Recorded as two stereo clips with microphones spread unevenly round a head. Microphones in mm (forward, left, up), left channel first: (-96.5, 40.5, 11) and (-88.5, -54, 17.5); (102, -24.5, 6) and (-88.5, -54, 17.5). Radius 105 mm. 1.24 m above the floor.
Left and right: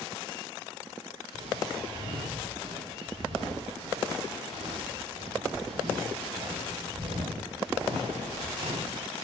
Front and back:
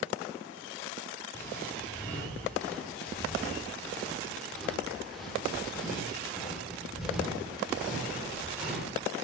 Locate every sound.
1.3 s footsteps: 65° right, 6.5 m; by 9.0 s 90° right, 9.5 m